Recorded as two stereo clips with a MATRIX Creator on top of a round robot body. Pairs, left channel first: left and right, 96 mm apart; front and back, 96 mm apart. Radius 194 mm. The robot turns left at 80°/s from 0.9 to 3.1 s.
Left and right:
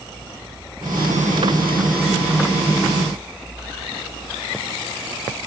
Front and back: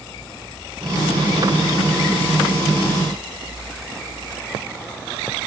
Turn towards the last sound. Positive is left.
No sound to turn to.